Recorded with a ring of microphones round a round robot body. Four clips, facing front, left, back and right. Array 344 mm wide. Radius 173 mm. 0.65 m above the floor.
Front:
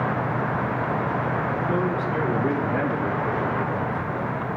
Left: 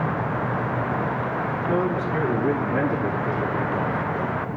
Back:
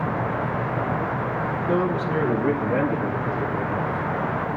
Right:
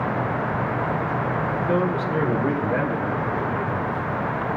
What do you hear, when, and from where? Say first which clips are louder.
1.7 s a man speaking: even, back 4 dB; 140° right, 2 m; by 4.4 s 110° right, 6 m